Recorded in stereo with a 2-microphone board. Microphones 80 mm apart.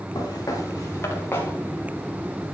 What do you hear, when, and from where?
0.1 s footsteps: 50° left (ahead or behind), 3.5 m; by 2.5 s 5° left (ahead or behind), 3 m